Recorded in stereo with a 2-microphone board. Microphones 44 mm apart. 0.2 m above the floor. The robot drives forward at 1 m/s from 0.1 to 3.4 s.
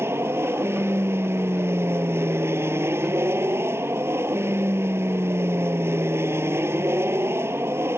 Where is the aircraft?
70° right (ahead or behind); by 8.0 s 75° right (ahead or behind).